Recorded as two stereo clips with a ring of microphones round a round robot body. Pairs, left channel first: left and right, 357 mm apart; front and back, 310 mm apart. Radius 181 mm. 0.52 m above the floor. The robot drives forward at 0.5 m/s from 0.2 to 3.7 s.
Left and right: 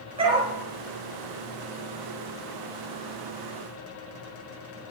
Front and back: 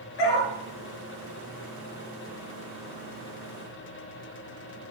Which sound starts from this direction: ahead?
A dog barking, at 0.2 s.